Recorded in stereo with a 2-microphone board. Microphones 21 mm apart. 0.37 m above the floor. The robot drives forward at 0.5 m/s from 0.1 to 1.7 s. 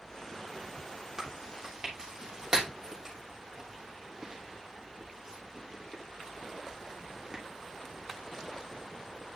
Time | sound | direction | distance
1.2 | chewing | 30° right (ahead or behind) | 2.5 m